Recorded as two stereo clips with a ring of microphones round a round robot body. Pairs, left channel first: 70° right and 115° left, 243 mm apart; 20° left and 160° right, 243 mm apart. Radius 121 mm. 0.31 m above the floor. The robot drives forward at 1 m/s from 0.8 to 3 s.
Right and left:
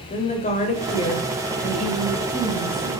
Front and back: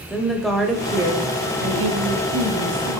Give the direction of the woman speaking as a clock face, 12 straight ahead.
2 o'clock.